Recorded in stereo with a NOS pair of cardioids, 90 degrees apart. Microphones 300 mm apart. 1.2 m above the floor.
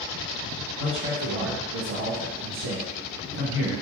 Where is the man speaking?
40° right, 1.2 m.